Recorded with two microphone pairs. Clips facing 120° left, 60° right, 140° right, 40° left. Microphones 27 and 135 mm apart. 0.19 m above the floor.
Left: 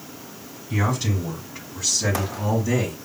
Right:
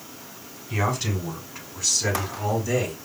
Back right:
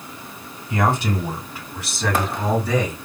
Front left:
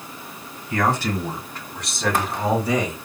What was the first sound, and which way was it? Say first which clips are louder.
A man speaking: left 1 dB, back right 1 dB; 140° right.